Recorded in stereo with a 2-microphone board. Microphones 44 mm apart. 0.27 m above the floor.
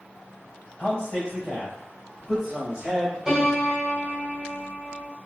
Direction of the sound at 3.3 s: 15° right (ahead or behind).